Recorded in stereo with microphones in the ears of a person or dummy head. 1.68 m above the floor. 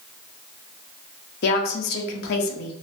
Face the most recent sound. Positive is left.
turn(degrees=55)  # may be behind; listen again after turning